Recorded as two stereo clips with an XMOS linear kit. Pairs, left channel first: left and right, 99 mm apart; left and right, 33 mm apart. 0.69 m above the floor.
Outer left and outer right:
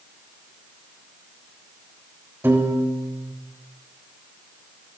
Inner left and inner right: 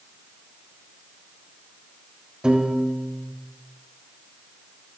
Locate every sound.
2.4 s a piano: 20° right (ahead or behind), 3.5 m